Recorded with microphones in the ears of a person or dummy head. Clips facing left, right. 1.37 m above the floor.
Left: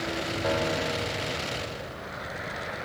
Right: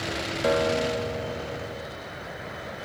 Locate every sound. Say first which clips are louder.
0.4 s a guitar: right 6 dB; 45° right (ahead or behind), 3.5 m